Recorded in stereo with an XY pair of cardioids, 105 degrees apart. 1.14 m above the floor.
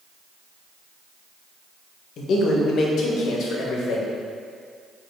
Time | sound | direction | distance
2.2 | a man speaking | 70° left | 0.8 m